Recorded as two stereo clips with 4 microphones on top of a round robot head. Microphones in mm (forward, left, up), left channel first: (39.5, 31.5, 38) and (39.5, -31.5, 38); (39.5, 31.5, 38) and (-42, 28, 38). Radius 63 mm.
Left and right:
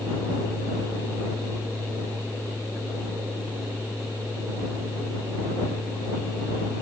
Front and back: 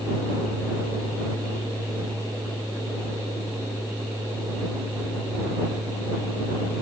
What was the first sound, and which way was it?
Only background noise.